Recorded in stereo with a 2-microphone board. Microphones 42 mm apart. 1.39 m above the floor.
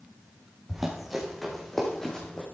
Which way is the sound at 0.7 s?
10° right (ahead or behind).